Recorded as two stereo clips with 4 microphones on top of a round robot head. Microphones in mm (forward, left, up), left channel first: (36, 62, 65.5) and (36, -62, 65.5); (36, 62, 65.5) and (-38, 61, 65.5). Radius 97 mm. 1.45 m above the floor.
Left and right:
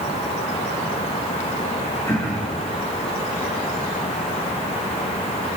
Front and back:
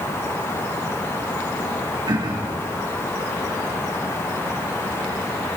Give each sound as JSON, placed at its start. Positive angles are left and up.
{"t": 2.1, "sound": "throat clearing", "azimuth_deg": 165, "distance_m": 3.0}